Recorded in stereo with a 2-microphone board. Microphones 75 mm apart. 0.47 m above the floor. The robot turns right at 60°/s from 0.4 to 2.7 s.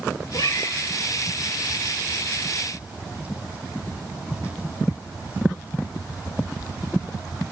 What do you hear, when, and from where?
0.3 s a cat meowing: 55° left (ahead or behind), 0.7 m; by 0.8 s 45° left (ahead or behind), 0.7 m